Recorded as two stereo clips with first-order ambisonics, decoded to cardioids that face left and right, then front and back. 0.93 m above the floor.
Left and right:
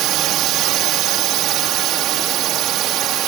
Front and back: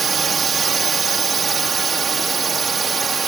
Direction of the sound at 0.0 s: 115° right.